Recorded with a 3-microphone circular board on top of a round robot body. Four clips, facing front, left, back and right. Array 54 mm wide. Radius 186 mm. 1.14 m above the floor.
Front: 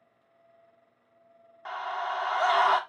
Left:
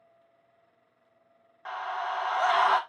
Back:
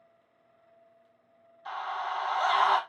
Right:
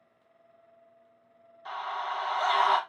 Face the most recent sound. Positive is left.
turn(degrees=50)